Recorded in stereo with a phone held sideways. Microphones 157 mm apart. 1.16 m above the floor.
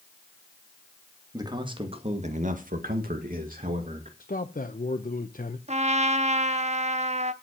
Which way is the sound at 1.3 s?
25° right (ahead or behind).